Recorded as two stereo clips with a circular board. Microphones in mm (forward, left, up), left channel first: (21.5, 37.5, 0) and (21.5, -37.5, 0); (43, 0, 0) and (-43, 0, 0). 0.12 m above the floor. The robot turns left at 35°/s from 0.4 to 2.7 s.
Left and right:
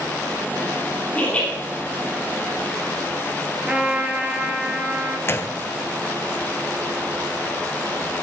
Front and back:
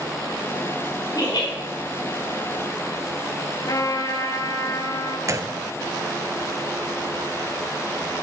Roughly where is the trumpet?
Ahead.